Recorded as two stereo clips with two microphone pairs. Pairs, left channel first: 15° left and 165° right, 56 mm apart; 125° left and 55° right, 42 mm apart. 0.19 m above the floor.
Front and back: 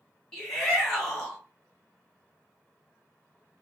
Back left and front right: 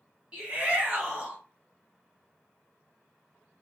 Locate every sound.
0.3 s a shout: 45° right, 1.4 m